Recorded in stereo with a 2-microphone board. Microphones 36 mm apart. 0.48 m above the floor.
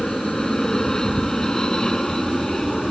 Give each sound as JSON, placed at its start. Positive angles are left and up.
{"t": 0.0, "sound": "an aircraft", "side_deg": 20}